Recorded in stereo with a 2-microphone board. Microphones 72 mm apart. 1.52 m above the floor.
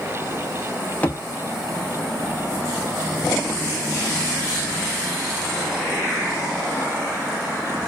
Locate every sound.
1.0 s a thud: 20° left (ahead or behind), 1.0 m